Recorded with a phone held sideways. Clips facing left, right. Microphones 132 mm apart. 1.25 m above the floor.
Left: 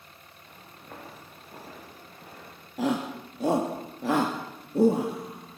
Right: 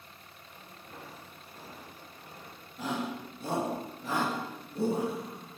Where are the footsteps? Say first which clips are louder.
Left 4 dB; 80° left, 8 m.